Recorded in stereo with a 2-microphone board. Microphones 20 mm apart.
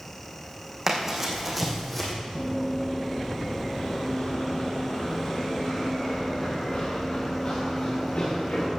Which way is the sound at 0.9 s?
15° right (ahead or behind).